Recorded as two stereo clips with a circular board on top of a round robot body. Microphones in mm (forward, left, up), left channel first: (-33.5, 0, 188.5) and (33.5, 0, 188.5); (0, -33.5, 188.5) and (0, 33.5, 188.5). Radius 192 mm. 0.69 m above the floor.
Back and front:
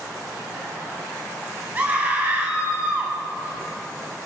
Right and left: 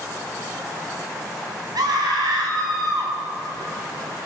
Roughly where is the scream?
Ahead left.